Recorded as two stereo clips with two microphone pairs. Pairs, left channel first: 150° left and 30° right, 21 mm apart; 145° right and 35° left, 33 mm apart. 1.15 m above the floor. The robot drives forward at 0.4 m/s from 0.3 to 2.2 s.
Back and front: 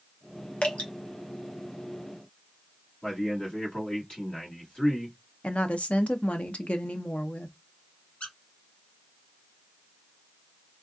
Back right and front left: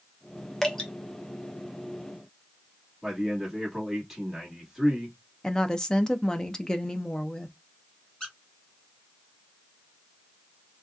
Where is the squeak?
145° left, 1.8 m.